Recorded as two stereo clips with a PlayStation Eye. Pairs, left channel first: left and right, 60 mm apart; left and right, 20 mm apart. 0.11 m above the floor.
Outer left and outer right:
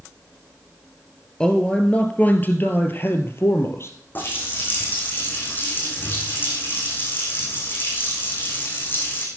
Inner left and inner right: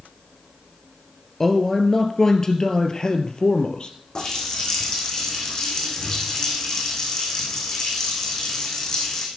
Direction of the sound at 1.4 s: 15° left (ahead or behind).